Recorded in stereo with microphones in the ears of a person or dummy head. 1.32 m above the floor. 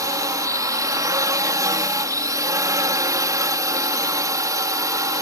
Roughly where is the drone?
Centre.